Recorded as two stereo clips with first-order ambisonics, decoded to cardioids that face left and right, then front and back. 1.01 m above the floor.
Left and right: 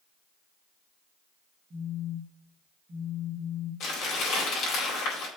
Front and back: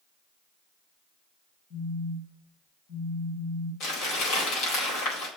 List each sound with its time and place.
1.7 s a phone buzzing: 10° right, 5.5 m
3.8 s crumpling: 45° left, 4.5 m